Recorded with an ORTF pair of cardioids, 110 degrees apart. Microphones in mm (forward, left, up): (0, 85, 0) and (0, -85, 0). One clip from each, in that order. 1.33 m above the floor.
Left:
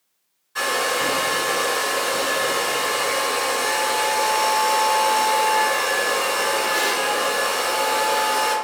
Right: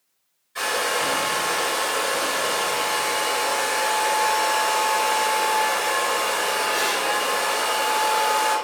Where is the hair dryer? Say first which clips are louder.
Left 2 dB; 30° left, 1.8 m.